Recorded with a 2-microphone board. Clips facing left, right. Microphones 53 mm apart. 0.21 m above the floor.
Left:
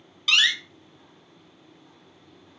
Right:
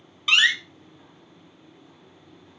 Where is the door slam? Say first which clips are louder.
Right 2 dB; 20° right (ahead or behind), 0.8 m.